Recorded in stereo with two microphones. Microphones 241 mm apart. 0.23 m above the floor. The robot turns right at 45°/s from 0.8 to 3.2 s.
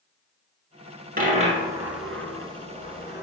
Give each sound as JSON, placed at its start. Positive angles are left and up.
{"t": 1.2, "sound": "a dropped coin", "side_deg": -40, "distance_m": 1.2}